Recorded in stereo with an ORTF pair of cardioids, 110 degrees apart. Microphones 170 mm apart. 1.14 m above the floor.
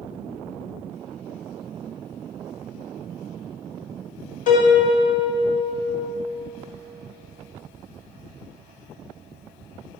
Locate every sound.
4.5 s a piano: 50° left, 1.2 m